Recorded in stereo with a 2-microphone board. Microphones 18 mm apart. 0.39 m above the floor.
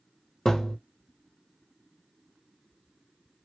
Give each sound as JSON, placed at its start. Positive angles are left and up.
{"t": 0.5, "sound": "a thud", "side_deg": 20, "distance_m": 1.6}